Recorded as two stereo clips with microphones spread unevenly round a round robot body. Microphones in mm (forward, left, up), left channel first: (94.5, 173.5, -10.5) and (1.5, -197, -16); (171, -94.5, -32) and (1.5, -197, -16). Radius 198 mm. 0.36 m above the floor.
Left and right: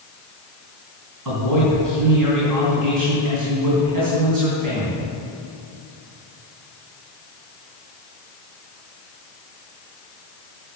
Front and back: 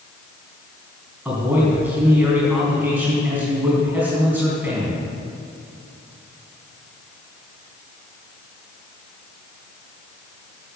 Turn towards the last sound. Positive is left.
turn(degrees=-70)